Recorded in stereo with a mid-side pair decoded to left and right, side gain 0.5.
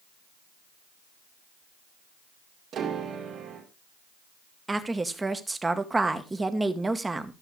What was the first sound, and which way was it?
A piano, 60° right.